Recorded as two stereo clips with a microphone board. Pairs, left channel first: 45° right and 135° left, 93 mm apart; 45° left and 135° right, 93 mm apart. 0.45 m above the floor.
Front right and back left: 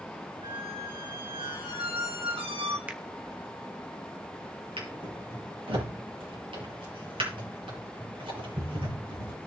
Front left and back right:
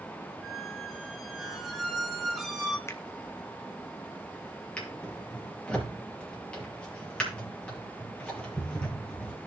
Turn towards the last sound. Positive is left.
turn(degrees=125)